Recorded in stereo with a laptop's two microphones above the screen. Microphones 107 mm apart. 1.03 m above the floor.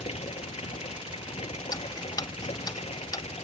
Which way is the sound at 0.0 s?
75° left (ahead or behind).